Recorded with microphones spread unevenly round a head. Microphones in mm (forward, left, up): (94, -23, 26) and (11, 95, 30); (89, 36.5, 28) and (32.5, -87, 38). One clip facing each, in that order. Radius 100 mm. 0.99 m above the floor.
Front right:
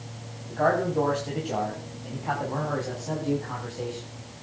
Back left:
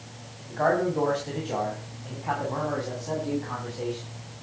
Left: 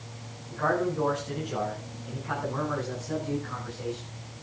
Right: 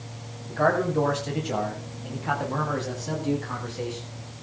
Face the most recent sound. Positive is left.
turn(degrees=-140)